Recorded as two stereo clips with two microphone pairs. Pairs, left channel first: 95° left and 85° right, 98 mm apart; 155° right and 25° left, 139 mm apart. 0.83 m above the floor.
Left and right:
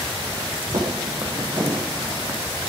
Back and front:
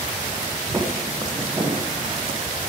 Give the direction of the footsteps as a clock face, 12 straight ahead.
2 o'clock.